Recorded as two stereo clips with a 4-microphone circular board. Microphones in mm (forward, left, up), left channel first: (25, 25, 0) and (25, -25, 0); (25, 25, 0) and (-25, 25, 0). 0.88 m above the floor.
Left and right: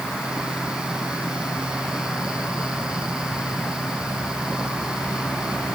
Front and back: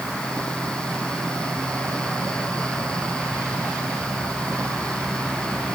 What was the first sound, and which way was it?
Only background noise.